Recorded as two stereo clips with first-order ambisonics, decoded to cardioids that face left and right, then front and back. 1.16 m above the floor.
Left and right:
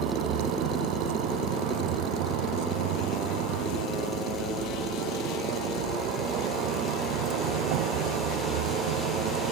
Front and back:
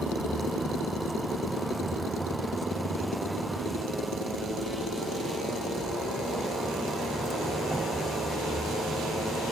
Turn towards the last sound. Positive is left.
turn(degrees=-100)